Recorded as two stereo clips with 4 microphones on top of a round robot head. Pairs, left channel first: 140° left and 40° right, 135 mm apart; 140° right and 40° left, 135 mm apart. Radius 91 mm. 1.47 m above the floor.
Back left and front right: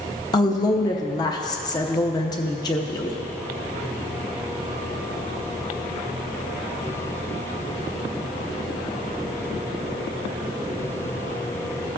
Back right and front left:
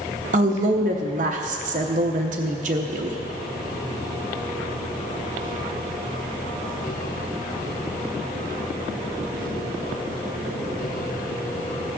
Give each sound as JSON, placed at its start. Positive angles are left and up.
{"t": 0.3, "sound": "a woman speaking", "azimuth_deg": 75, "distance_m": 0.7}